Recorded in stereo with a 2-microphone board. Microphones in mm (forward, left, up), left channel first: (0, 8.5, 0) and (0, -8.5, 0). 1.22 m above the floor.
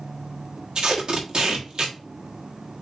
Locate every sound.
0.8 s tape being pulled: 40° right (ahead or behind), 1.4 m